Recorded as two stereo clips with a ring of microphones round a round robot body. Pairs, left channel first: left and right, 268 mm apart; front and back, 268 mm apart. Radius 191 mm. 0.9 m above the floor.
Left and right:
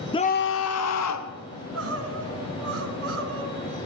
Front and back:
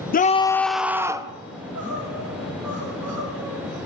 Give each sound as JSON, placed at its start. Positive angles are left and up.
{"t": 0.1, "sound": "a scream", "azimuth_deg": 25, "distance_m": 0.7}
{"t": 1.5, "sound": "crying", "azimuth_deg": -125, "distance_m": 3.5}